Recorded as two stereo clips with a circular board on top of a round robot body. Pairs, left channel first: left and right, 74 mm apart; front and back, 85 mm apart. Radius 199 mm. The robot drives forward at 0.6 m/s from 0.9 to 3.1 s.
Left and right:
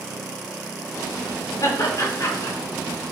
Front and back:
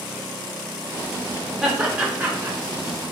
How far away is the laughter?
About 1.6 m.